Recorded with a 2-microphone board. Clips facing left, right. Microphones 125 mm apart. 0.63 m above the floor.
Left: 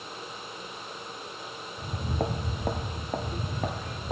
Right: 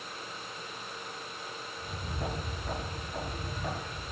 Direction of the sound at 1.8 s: 65° left (ahead or behind).